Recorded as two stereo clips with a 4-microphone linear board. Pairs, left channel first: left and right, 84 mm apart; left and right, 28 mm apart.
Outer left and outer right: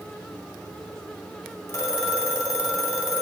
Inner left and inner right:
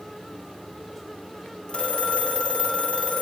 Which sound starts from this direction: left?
A phone ringing, at 1.7 s.